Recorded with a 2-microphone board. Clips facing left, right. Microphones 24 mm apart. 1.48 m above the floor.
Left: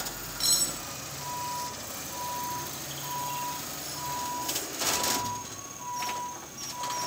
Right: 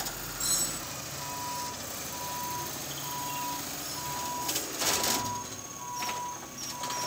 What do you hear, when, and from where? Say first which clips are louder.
0.4 s cutlery clinking: left 5 dB; 50° left (ahead or behind), 7 m